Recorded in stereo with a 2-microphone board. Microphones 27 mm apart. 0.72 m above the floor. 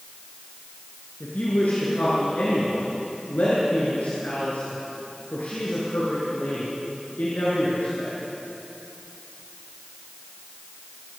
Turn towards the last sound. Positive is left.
turn(degrees=75)  # may be behind; listen again after turning